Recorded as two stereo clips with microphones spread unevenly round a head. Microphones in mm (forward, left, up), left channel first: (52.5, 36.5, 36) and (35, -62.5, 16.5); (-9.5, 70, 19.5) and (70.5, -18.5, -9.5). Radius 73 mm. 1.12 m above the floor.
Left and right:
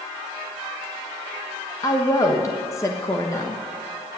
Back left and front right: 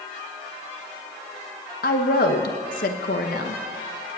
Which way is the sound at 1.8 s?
150° left.